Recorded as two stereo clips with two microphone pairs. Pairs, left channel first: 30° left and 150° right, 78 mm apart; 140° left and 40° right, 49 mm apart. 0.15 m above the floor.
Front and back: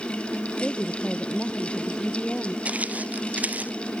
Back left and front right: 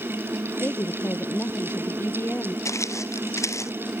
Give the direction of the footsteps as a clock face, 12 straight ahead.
7 o'clock.